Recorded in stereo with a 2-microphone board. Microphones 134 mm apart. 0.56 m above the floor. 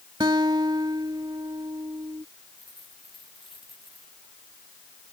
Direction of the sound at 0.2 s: 30° right (ahead or behind).